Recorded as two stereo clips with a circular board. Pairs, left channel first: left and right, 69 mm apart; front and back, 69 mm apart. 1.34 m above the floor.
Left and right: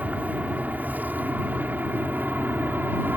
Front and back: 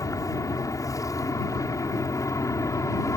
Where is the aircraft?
25° right; by 3.2 s 30° right.